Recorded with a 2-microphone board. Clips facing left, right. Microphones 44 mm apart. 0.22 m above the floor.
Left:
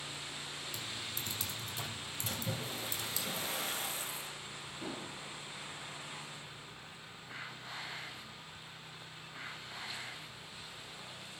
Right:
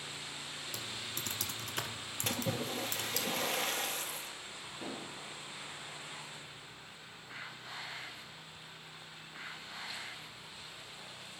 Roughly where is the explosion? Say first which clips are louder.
Even; right.